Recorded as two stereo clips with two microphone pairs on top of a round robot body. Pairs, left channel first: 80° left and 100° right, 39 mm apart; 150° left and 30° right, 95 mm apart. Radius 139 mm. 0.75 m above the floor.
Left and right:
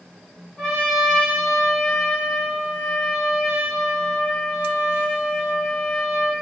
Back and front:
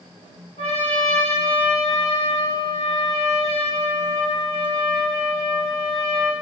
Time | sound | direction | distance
0.6 | a trumpet | 160° left | 2.0 m